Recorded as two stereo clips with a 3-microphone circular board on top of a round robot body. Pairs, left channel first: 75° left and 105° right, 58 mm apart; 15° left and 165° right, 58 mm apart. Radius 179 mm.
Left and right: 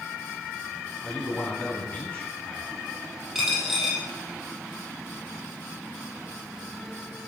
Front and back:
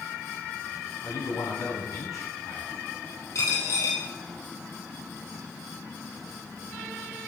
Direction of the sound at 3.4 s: 20° right.